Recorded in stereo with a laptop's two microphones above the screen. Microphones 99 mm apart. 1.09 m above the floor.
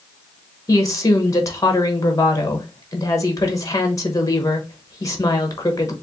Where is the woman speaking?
35° left (ahead or behind), 0.9 m.